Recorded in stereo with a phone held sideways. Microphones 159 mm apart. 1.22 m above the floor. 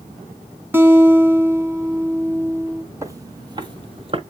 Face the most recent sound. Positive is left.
turn(degrees=-35)  # may be behind; listen again after turning